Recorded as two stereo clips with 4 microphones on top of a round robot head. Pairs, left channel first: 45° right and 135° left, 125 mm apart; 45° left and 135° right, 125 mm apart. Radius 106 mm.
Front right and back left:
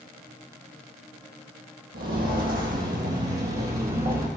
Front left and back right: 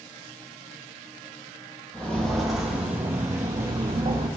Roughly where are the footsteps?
Behind left.